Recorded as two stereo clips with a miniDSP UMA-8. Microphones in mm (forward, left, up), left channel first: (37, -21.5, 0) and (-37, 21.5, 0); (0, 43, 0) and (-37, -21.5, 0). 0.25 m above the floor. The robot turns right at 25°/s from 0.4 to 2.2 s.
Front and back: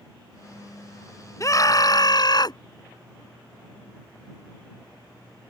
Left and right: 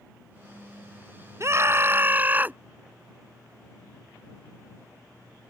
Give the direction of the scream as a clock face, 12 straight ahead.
3 o'clock.